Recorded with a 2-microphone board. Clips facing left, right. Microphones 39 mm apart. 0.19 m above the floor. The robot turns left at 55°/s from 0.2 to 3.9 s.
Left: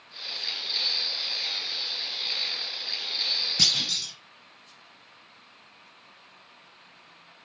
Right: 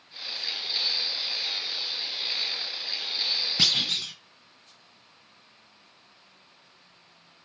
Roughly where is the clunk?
Centre.